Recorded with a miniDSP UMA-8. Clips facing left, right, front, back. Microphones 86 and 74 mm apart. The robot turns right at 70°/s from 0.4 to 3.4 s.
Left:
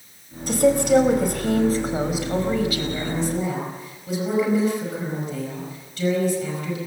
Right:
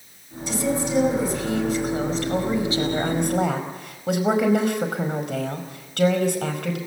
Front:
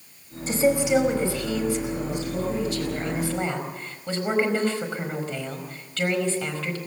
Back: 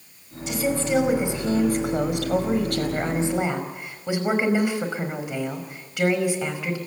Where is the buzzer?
No buzzer in this recording.